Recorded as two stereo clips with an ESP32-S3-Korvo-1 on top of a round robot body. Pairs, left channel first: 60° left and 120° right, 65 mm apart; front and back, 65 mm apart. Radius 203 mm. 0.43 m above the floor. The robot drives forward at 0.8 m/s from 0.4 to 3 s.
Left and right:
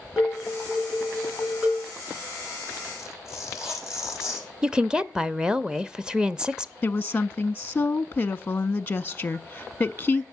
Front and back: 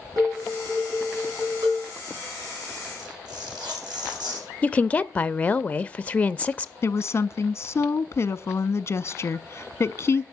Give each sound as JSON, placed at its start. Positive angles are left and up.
{"t": 0.2, "sound": "dishes clattering", "azimuth_deg": 160, "distance_m": 4.5}
{"t": 3.0, "sound": "tearing paper", "azimuth_deg": 155, "distance_m": 6.5}
{"t": 4.6, "sound": "a woman speaking", "azimuth_deg": -55, "distance_m": 0.8}
{"t": 6.8, "sound": "a woman speaking", "azimuth_deg": 10, "distance_m": 0.8}